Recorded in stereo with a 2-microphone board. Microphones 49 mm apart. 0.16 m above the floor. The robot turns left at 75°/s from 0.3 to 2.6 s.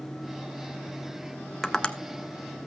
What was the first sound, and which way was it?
Tapping, 10° left (ahead or behind).